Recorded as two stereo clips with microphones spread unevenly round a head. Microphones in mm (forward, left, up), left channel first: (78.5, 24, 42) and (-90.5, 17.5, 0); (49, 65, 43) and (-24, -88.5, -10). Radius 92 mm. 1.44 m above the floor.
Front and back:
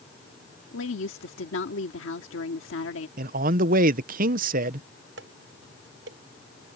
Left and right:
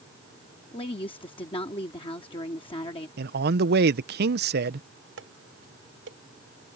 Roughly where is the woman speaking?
Ahead.